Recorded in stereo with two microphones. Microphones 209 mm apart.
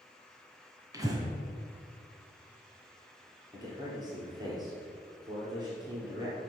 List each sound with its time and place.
0.9 s breathing: 15° right (ahead or behind), 1.9 m
3.5 s a man speaking: 20° right (ahead or behind), 3.5 m